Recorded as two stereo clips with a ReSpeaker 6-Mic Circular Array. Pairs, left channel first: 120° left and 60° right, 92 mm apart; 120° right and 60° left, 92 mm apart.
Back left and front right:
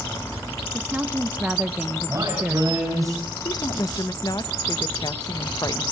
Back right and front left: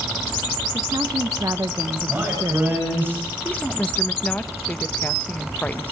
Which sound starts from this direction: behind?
A woman speaking, at 3.5 s.